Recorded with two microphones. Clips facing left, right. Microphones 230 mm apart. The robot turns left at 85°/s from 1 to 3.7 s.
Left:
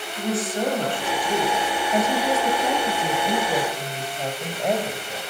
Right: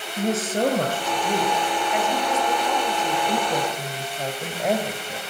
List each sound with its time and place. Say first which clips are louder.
0.2 s a woman speaking: right 2 dB; 135° right, 3.5 m; by 5.2 s 5° right, 3.5 m